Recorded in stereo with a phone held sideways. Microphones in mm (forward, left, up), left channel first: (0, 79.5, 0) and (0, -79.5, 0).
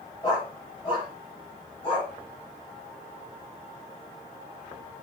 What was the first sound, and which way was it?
A dog barking, 30° left (ahead or behind).